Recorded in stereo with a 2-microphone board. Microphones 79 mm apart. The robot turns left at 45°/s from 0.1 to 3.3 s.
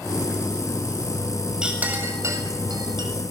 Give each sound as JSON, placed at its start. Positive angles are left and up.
{"t": 1.6, "sound": "a clink", "side_deg": -10, "distance_m": 6.5}